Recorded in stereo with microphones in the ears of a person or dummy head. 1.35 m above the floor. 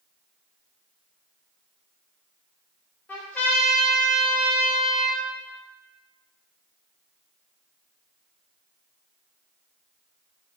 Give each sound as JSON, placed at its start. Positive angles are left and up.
{"t": 3.1, "sound": "a trumpet", "side_deg": 10, "distance_m": 0.5}